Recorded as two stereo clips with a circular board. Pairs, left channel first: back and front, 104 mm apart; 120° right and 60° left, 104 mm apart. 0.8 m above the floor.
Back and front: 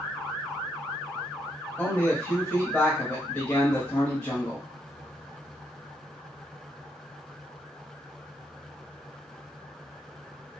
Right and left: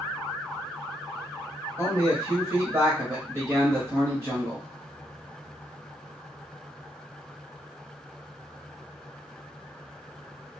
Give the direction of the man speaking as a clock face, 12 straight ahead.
8 o'clock.